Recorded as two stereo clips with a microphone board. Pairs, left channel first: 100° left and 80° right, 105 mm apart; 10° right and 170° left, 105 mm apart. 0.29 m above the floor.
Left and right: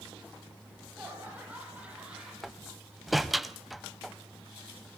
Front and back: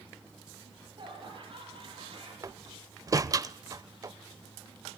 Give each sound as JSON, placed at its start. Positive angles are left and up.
{"t": 0.6, "sound": "laughter", "azimuth_deg": -150, "distance_m": 8.5}
{"t": 2.4, "sound": "a door slam", "azimuth_deg": -170, "distance_m": 0.6}